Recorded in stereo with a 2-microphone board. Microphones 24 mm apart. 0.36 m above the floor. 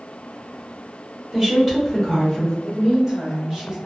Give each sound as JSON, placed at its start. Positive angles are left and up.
{"t": 1.3, "sound": "a woman speaking", "side_deg": -15, "distance_m": 1.2}
{"t": 2.6, "sound": "a woman speaking", "side_deg": -20, "distance_m": 1.7}